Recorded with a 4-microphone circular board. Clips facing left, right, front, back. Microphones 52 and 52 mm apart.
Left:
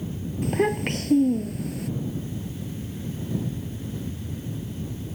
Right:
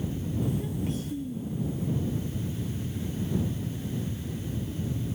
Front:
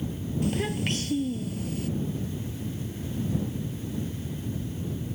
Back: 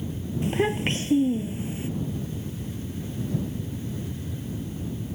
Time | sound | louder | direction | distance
0.4 | a child speaking | left 11 dB, back 4 dB | 115° left | ?